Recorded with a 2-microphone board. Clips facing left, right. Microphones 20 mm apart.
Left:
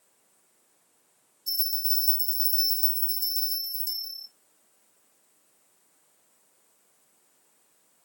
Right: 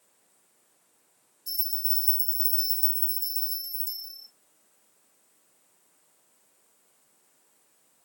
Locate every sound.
1.5 s a bell: 25° left (ahead or behind), 2.5 m